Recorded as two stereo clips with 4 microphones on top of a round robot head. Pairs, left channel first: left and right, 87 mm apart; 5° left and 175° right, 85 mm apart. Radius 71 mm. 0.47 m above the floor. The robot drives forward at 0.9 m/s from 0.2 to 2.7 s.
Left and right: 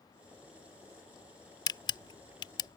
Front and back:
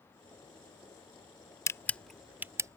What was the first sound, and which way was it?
A camera shutter, 55° left.